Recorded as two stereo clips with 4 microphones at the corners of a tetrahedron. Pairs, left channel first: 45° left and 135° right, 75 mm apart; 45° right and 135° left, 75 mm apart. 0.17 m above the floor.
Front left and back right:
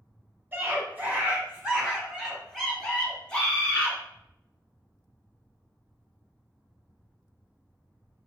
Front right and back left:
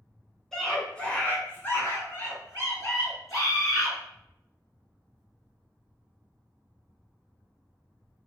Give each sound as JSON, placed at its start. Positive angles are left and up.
{"t": 0.5, "sound": "a scream", "azimuth_deg": -125, "distance_m": 1.4}